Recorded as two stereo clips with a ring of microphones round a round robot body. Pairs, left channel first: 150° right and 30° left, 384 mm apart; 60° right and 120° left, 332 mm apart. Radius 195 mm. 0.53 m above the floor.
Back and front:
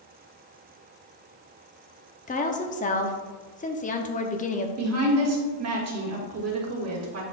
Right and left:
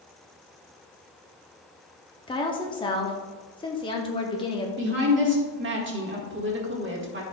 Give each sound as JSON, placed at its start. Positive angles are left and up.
{"t": 2.3, "sound": "a woman speaking", "azimuth_deg": -115, "distance_m": 0.7}
{"t": 4.8, "sound": "a woman speaking", "azimuth_deg": 70, "distance_m": 1.7}